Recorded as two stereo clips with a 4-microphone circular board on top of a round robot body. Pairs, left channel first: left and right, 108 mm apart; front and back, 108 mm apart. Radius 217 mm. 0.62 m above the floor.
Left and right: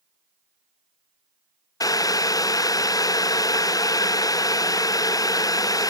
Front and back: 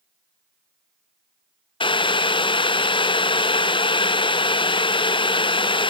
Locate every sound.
1.8 s boiling: 35° left, 0.6 m